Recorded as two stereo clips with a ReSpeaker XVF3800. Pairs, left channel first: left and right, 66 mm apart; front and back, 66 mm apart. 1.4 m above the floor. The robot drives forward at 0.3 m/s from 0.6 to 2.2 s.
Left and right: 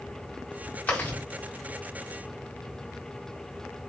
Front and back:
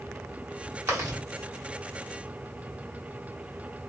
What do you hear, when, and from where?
0.9 s chewing: 150° left, 1.0 m